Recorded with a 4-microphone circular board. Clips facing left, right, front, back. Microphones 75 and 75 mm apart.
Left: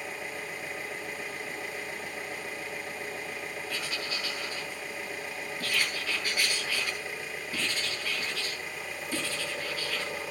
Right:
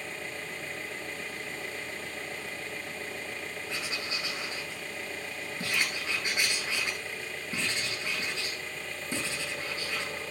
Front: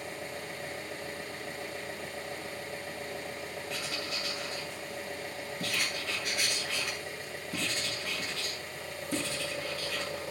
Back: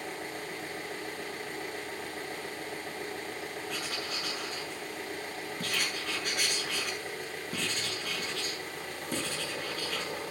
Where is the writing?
155° right, 8 m.